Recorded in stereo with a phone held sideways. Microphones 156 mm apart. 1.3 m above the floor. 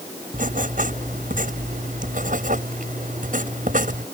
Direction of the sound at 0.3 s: 60° right (ahead or behind).